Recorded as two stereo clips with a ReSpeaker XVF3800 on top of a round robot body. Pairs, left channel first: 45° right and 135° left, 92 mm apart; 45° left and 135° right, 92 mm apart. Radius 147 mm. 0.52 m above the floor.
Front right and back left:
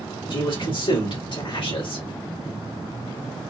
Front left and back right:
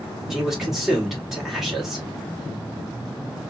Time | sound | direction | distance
0.3 | a man speaking | 50° right | 2.5 m